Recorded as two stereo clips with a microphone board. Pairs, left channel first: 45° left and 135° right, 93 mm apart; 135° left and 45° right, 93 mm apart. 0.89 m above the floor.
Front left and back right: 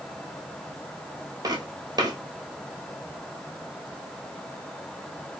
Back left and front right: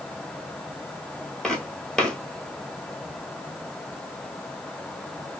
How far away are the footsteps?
About 1.1 m.